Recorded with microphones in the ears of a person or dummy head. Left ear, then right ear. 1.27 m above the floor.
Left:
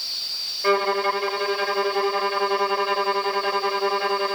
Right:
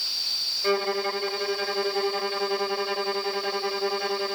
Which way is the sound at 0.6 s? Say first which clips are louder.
Left 8 dB; 40° left (ahead or behind).